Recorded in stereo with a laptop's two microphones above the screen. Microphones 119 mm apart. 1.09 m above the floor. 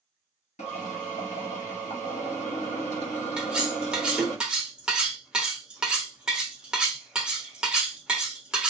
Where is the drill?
70° left (ahead or behind), 1.0 m.